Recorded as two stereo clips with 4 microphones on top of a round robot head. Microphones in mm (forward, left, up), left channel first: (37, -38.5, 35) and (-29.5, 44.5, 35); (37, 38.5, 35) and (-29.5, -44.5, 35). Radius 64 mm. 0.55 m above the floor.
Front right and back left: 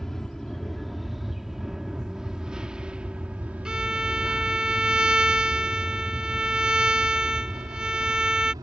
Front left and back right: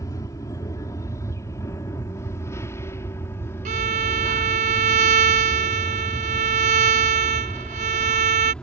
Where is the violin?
150° right.